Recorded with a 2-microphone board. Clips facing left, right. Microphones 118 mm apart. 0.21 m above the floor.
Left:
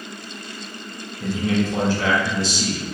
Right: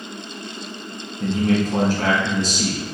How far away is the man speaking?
About 1.4 m.